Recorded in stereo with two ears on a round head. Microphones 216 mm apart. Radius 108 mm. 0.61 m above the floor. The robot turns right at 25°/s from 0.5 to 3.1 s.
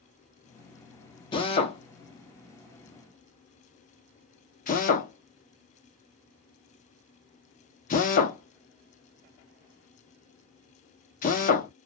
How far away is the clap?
I don't hear a clap.